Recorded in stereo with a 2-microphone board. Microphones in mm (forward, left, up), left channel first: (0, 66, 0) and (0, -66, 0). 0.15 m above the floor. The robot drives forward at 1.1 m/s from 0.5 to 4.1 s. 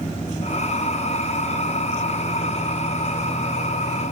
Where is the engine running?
50° left (ahead or behind), 7 m; by 4.1 s 75° left (ahead or behind), 5.5 m.